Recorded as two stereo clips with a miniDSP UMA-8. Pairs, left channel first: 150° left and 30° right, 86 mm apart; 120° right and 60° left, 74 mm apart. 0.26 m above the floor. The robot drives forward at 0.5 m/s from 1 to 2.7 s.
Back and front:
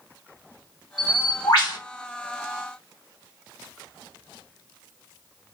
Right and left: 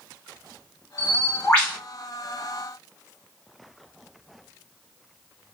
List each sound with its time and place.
1.0 s a bird: 165° left, 1.6 m; by 1.8 s 170° left, 2.0 m